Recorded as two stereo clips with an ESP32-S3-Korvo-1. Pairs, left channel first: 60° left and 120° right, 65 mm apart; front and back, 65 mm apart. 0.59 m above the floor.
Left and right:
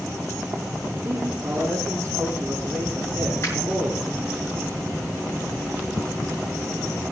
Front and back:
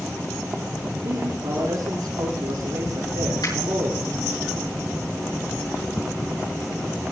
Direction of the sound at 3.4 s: 10° left.